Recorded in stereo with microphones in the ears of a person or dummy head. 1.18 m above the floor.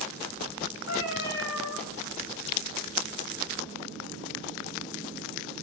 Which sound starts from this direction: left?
A cat meowing, at 0.9 s.